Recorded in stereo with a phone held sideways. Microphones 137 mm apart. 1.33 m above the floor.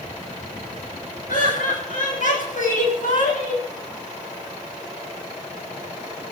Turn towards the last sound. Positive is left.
turn(degrees=70)  # may be behind; listen again after turning